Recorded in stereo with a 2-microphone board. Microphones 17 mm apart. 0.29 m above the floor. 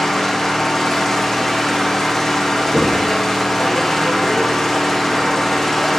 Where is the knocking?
20° left (ahead or behind), 9.5 m.